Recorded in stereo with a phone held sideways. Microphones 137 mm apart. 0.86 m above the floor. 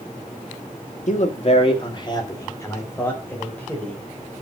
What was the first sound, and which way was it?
A man speaking, 60° left (ahead or behind).